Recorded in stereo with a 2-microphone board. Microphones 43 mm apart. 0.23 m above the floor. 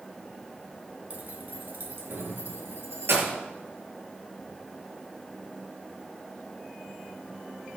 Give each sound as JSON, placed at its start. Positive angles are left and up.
{"t": 1.1, "sound": "keys jangling", "side_deg": -40, "distance_m": 2.0}